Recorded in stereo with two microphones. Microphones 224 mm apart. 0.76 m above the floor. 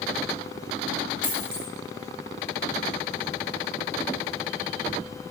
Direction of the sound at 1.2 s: 40° left (ahead or behind).